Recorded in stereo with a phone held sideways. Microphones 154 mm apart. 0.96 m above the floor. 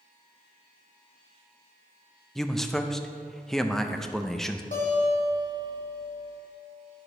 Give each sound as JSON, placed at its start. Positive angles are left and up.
{"t": 2.4, "sound": "a man speaking", "side_deg": 5, "distance_m": 0.5}
{"t": 4.7, "sound": "a guitar", "side_deg": 55, "distance_m": 3.0}